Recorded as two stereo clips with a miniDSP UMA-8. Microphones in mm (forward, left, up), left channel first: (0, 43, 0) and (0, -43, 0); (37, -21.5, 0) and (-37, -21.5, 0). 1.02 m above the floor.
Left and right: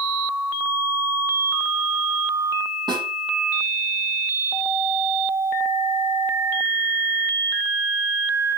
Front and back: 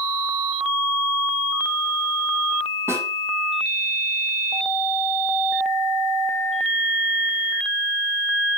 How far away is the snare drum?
About 6.5 m.